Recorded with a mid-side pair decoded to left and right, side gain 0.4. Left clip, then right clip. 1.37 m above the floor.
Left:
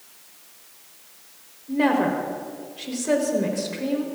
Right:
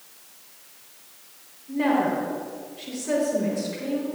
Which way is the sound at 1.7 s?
45° left.